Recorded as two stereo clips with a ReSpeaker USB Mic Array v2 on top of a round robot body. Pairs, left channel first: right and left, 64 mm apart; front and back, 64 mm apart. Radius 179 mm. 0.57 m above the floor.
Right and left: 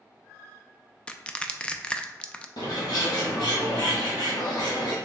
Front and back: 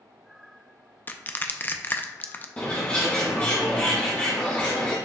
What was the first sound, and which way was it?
Crushing, 25° right.